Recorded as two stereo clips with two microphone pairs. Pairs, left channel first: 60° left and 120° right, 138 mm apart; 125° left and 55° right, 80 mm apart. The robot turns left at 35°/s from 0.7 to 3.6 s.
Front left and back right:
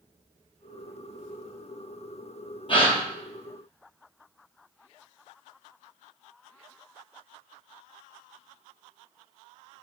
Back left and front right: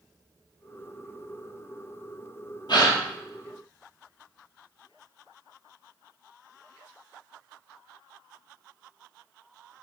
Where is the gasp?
110° left, 2.5 m; by 3.0 s 100° left, 2.5 m.